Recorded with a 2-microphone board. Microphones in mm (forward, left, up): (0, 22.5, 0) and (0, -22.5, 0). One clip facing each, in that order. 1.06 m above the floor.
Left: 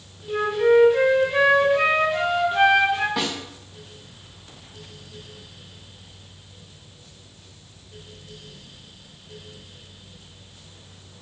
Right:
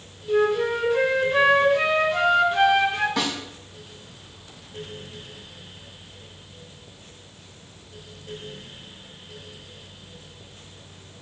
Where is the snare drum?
10° left (ahead or behind), 4 m.